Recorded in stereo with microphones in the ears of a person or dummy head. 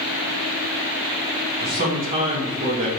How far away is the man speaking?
About 2.0 m.